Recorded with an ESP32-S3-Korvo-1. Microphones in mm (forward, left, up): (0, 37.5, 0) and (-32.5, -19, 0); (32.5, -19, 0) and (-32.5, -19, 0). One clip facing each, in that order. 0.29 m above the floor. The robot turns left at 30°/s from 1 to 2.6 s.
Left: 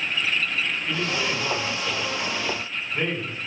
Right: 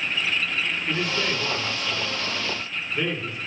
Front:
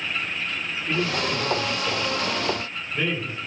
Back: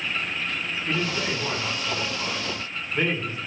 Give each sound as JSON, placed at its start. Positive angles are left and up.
{"t": 0.9, "sound": "a man speaking", "azimuth_deg": 170, "distance_m": 2.5}